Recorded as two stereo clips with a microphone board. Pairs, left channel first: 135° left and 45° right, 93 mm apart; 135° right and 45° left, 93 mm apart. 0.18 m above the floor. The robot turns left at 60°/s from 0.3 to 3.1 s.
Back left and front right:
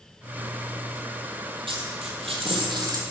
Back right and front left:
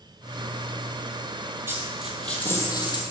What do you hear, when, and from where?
1.7 s a dropped coin: 20° right, 1.4 m; by 3.0 s 100° right, 1.4 m